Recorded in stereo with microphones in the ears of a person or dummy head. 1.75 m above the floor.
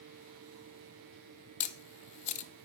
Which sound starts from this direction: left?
A camera shutter, at 1.6 s.